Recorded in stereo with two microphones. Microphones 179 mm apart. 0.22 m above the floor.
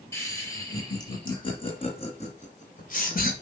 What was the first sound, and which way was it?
Laughter, 15° left (ahead or behind).